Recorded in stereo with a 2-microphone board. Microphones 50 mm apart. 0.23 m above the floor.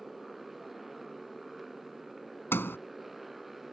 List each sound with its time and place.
0.0 s a motorcycle: 5° right (ahead or behind)
2.5 s a sliding door: 50° left (ahead or behind)